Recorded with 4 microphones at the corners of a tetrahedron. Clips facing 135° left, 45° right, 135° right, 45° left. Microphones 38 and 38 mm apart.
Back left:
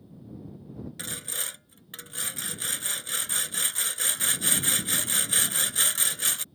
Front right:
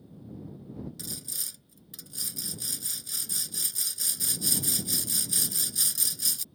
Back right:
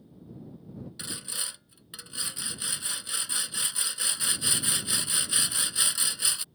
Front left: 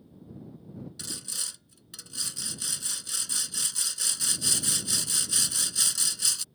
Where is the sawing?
160° left.